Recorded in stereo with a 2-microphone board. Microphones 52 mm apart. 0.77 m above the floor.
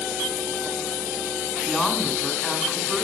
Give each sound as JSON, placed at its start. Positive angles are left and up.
{"t": 1.7, "sound": "a woman speaking", "side_deg": 0, "distance_m": 4.5}